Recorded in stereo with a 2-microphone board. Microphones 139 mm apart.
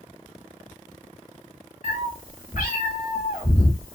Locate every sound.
1.8 s a cat meowing: 85° left, 1.1 m